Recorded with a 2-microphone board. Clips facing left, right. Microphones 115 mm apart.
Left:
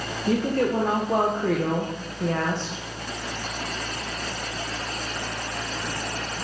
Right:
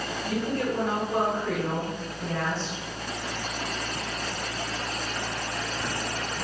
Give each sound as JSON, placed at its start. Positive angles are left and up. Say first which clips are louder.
{"t": 0.3, "sound": "a woman speaking", "louder": "left 6 dB", "side_deg": 60, "distance_m": 1.7}